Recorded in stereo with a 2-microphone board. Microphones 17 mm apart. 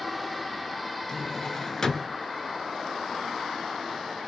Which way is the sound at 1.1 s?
30° left (ahead or behind).